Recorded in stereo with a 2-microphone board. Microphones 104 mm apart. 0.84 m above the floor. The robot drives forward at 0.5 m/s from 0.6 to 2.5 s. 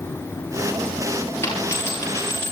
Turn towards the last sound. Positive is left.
turn(degrees=25)  # may be behind; listen again after turning